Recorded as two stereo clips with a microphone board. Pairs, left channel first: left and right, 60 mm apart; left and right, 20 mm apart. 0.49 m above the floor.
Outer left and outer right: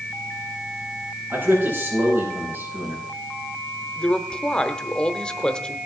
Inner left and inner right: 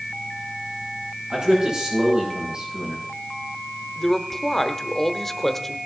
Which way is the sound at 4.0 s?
15° left (ahead or behind).